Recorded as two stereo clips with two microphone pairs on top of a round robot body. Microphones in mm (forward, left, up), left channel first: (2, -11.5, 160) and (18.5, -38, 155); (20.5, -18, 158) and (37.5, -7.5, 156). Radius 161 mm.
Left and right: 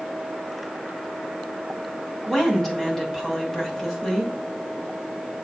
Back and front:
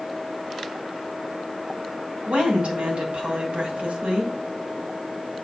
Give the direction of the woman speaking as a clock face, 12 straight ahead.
10 o'clock.